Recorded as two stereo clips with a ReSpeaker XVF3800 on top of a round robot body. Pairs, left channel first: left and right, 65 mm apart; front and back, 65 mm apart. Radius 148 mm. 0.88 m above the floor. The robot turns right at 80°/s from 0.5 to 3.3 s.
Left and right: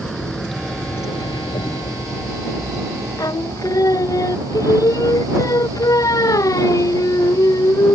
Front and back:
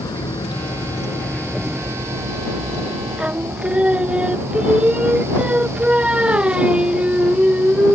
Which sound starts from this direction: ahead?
A vehicle, at 0.0 s.